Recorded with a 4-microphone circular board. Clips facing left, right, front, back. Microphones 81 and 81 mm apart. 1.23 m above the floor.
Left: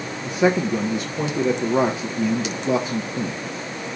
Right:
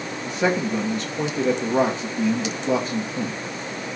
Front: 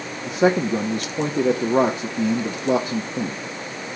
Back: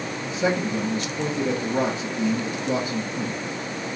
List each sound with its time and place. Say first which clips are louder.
0.3 s a man speaking: left 3 dB, front 6 dB; 10° left, 1.0 m